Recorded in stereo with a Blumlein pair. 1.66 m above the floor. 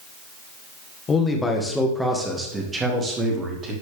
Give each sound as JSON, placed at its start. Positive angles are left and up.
{"t": 1.1, "sound": "a man speaking", "azimuth_deg": 20, "distance_m": 1.4}